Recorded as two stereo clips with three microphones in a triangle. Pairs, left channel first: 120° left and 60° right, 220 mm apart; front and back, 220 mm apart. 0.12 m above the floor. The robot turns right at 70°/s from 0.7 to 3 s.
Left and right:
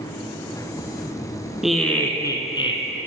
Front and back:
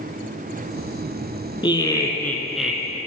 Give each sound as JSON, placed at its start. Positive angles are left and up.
{"t": 1.6, "sound": "laughter", "azimuth_deg": 25, "distance_m": 1.1}